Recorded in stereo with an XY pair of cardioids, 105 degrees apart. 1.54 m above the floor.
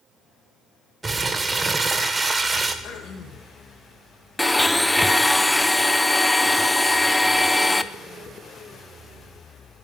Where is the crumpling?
25° right, 1.3 m.